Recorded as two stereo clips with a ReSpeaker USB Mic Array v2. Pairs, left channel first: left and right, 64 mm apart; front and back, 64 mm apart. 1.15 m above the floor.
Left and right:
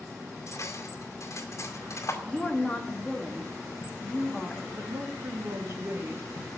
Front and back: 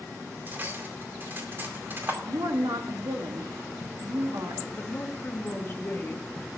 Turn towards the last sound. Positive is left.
turn(degrees=-55)